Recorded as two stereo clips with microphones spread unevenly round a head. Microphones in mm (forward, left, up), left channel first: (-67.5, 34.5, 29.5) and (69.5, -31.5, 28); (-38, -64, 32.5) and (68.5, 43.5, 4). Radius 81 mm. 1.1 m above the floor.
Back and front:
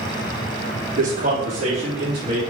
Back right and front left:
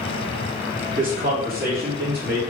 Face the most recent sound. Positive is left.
turn(degrees=35)